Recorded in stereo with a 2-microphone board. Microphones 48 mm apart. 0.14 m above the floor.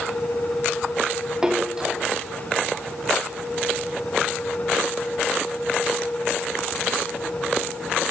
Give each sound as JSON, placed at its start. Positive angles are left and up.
{"t": 1.4, "sound": "a splash", "side_deg": -15, "distance_m": 5.5}